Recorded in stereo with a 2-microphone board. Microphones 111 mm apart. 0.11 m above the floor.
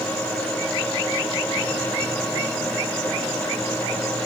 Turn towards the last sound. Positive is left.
No sound to turn to.